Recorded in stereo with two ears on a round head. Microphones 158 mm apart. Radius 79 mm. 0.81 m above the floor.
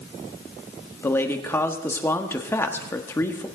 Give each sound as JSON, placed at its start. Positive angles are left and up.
{"t": 1.0, "sound": "a man speaking", "side_deg": 15, "distance_m": 1.4}